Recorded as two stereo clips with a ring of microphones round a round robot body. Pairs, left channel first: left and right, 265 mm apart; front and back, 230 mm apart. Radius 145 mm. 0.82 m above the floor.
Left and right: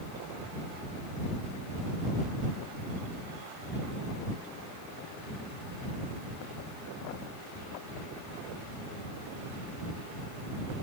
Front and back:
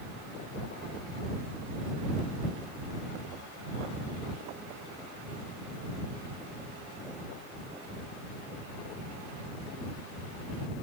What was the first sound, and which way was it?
Only background noise.